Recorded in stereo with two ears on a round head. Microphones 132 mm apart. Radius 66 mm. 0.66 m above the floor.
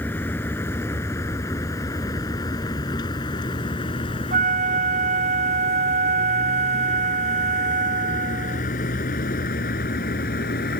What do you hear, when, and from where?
0.0 s a vehicle: 15° left (ahead or behind); by 10.8 s 70° left (ahead or behind)
4.3 s a flute: 55° right (ahead or behind)